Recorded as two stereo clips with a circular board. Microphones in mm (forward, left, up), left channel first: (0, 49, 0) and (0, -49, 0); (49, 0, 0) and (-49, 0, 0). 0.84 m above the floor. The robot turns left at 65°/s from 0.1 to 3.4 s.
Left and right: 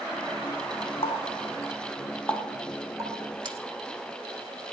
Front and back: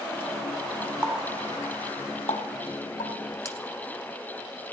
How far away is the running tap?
About 1.3 m.